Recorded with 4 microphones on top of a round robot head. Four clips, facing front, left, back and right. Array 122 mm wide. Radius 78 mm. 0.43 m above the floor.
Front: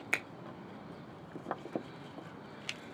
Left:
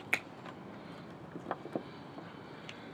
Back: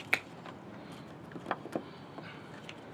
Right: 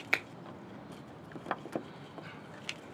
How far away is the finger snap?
About 1.2 m.